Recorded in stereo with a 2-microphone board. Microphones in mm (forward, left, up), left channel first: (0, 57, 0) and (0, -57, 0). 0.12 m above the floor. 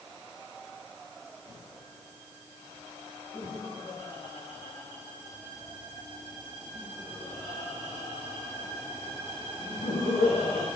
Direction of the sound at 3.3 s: 60° left (ahead or behind).